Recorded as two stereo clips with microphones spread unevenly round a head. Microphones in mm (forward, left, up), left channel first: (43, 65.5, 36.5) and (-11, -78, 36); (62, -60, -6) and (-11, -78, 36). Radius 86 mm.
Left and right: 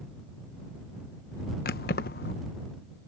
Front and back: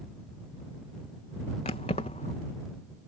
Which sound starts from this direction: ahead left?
Keys jangling, at 1.6 s.